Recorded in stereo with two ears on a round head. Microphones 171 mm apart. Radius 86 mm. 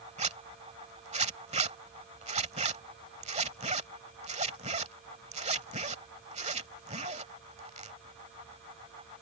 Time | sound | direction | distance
0.2 | a zipper | 35° right (ahead or behind) | ?